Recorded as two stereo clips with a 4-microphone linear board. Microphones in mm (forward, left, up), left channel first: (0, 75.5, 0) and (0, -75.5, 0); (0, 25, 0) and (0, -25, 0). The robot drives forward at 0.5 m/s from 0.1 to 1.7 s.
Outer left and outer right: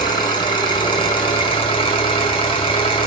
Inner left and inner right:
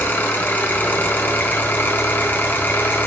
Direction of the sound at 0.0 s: 30° left (ahead or behind).